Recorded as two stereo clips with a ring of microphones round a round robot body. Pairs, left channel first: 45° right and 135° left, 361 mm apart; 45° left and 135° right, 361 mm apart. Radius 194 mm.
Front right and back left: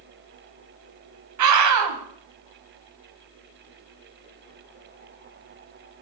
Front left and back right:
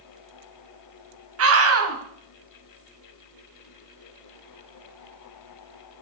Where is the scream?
175° left, 4 m.